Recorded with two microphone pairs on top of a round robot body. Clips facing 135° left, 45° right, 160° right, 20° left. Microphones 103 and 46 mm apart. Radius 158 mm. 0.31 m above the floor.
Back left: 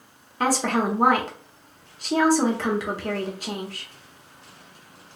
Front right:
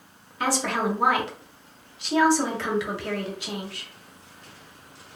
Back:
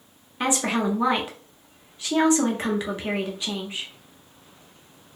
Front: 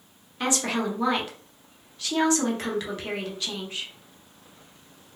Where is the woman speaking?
135° left, 1.5 m.